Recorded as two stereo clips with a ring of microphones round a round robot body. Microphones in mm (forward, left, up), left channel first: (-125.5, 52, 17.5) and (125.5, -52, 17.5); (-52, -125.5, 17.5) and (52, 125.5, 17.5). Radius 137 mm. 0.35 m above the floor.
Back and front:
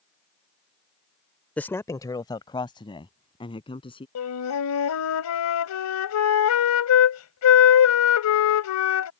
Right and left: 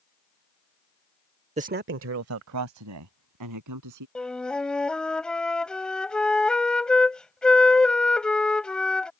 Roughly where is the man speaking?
Left.